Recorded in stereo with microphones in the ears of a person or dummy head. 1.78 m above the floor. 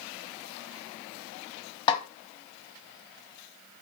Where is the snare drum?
30° left (ahead or behind), 0.7 m.